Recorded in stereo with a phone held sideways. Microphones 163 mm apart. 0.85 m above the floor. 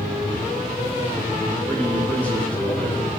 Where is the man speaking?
10° left (ahead or behind), 5 m.